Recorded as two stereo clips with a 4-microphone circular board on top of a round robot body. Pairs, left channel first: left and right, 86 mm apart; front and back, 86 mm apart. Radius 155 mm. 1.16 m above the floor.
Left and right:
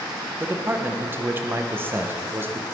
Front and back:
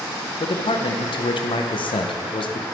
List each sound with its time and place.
0.4 s a man speaking: 25° right, 0.8 m